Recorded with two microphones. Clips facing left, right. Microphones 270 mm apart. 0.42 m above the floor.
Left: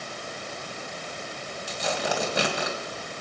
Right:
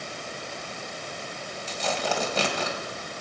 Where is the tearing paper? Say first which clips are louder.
Even; 15° left (ahead or behind), 2 m.